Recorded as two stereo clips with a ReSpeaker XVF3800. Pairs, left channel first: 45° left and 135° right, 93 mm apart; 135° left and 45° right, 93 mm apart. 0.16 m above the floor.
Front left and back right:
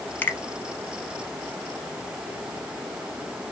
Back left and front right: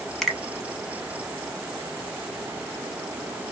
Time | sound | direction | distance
0.2 | a finger snap | 55° left | 0.8 m